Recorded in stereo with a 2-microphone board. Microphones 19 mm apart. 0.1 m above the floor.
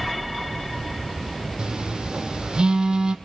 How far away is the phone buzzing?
About 1.7 m.